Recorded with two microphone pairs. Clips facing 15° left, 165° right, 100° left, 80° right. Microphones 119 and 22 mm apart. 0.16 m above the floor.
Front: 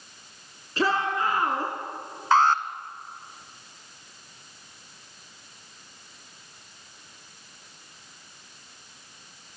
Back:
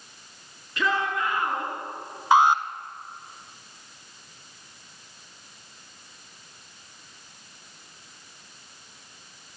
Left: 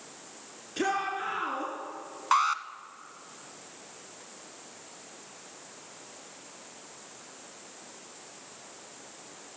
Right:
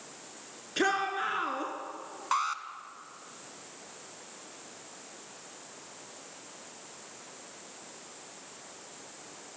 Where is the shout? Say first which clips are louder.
Front 2 dB, right 1 dB; 25° right, 2.5 m.